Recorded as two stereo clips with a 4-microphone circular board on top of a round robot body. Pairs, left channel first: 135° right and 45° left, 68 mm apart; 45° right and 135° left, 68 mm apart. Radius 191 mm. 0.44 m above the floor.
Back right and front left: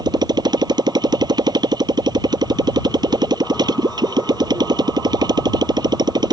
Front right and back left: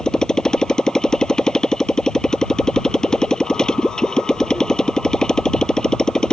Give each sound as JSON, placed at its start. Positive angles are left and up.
{"t": 0.0, "sound": "a motorcycle", "azimuth_deg": 35}